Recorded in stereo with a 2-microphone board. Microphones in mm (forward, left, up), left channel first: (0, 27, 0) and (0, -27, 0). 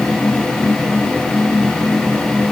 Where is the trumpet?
I don't hear a trumpet.